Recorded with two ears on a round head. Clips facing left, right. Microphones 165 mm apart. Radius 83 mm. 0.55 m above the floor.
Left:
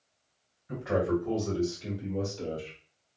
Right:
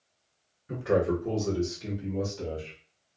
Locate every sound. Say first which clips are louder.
0.7 s a man speaking: right 2 dB; 55° right (ahead or behind), 2 m; by 2.8 s 5° right (ahead or behind), 1.7 m